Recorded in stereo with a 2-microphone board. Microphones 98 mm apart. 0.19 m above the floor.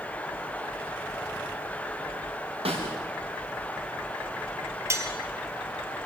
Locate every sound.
2.6 s a snare drum: 75° right (ahead or behind), 8 m
4.9 s cutlery clinking: 30° right (ahead or behind), 2.5 m